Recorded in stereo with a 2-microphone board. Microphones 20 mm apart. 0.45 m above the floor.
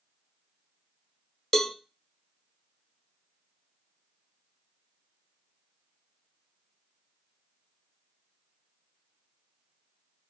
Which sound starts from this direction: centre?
A cowbell, at 1.5 s.